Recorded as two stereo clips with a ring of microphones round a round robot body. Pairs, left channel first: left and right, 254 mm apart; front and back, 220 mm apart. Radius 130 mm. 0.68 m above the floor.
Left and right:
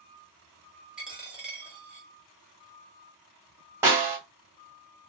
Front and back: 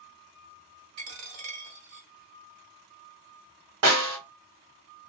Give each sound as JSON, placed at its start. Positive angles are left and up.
{"t": 1.0, "sound": "a dropped coin", "azimuth_deg": -175, "distance_m": 1.2}
{"t": 3.8, "sound": "a snare drum", "azimuth_deg": -170, "distance_m": 1.6}